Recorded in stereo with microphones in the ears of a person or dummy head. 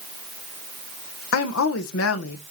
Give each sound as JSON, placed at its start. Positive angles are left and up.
{"t": 1.3, "sound": "a woman speaking", "side_deg": 80, "distance_m": 1.0}